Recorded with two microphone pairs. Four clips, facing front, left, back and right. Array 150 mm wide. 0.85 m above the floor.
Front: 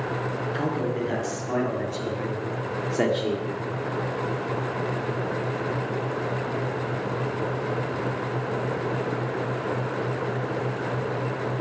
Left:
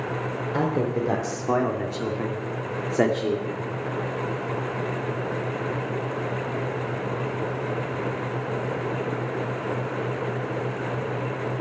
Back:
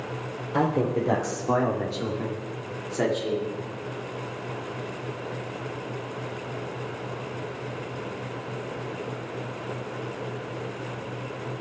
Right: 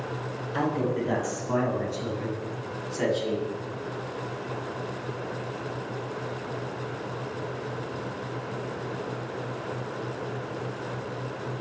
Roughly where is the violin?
I don't hear a violin.